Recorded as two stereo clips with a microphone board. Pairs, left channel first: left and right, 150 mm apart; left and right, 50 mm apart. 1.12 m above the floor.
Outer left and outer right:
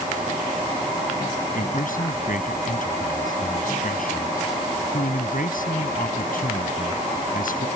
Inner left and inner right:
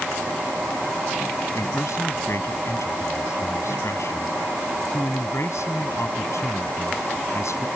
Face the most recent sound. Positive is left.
turn(degrees=70)  # may be behind; listen again after turning